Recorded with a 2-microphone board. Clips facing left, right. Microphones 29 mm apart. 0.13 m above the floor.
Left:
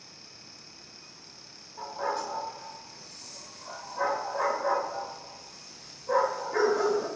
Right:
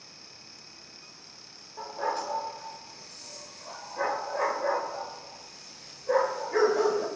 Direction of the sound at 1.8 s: 50° right (ahead or behind).